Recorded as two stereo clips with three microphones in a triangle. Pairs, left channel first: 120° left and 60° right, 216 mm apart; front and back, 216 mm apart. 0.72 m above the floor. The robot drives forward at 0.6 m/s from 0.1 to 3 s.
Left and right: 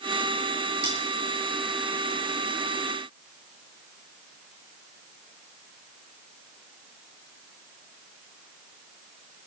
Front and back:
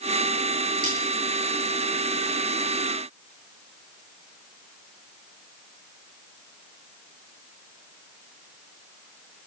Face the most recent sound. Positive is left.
turn(degrees=-20)